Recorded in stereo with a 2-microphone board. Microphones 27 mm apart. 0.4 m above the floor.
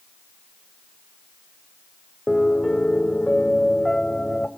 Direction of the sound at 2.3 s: 25° left (ahead or behind).